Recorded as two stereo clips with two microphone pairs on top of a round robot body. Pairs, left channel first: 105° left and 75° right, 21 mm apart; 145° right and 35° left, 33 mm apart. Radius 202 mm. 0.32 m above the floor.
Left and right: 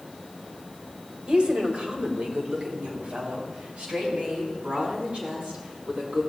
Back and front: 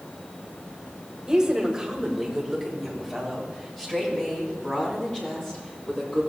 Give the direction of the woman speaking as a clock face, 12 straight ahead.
1 o'clock.